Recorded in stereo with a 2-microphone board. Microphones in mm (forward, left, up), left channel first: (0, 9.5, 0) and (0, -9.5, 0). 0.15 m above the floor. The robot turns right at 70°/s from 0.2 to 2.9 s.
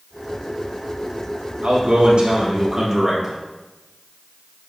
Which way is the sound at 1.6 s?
115° right.